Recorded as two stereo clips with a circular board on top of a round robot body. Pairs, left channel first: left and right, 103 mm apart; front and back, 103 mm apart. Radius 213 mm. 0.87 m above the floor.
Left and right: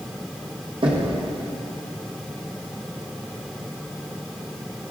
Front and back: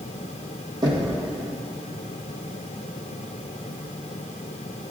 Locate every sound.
0.8 s knocking: 130° right, 1.5 m